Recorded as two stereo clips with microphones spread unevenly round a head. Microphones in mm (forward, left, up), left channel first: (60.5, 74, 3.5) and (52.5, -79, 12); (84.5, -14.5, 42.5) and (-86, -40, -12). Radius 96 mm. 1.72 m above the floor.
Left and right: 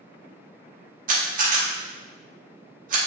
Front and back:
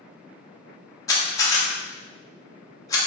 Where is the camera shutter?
60° right, 0.8 m.